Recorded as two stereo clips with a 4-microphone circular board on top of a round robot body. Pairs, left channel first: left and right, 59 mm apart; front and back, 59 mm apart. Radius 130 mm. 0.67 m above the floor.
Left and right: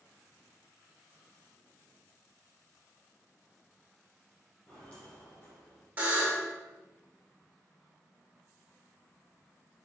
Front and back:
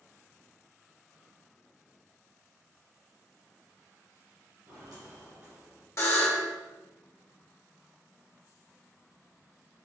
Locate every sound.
4.7 s footsteps: 165° left, 1.3 m; by 5.9 s 135° left, 1.7 m
6.0 s a buzzer: 30° right, 1.7 m